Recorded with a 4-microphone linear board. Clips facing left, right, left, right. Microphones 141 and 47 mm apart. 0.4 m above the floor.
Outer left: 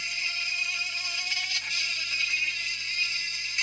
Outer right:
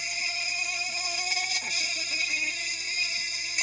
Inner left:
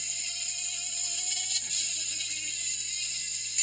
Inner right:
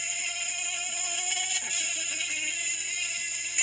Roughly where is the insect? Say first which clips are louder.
Outer right 5 dB, inner right 7 dB; right.